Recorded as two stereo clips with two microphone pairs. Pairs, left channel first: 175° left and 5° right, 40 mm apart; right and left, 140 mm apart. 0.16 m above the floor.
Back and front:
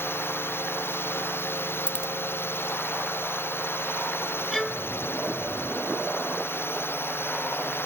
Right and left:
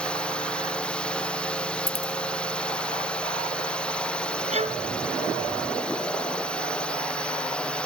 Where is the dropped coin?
120° right.